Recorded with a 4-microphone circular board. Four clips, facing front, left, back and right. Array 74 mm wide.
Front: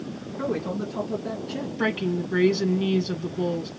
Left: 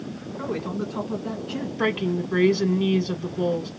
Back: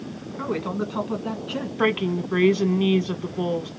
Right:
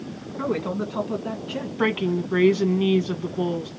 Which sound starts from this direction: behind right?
A man speaking, at 0.4 s.